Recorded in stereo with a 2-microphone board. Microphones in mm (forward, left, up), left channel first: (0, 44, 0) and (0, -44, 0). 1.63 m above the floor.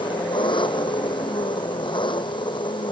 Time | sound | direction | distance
0.0 | an engine running | 65° left (ahead or behind) | ?